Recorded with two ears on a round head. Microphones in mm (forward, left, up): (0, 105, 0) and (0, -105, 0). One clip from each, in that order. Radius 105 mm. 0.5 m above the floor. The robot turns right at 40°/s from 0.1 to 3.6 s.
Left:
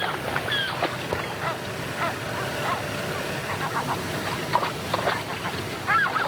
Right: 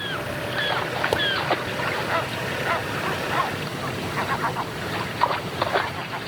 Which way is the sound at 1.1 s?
80° right.